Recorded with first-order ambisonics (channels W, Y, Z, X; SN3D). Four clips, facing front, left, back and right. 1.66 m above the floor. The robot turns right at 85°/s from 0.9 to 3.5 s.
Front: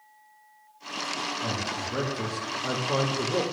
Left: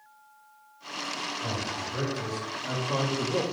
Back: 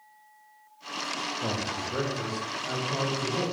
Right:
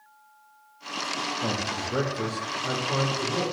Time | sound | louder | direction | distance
1.4 | a man speaking | right 3 dB, even | 125° right | 0.5 m